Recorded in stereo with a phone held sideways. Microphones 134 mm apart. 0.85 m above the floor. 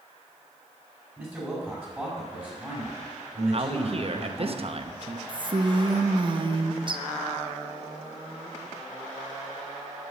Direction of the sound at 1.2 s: 15° right (ahead or behind).